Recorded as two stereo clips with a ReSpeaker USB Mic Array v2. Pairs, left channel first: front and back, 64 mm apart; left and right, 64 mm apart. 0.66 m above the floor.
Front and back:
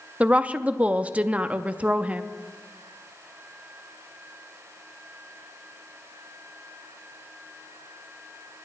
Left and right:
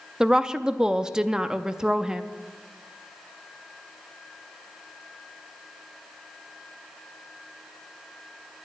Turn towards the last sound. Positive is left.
turn(degrees=-155)